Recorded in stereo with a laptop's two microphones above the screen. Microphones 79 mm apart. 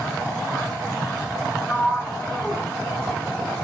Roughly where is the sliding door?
Centre.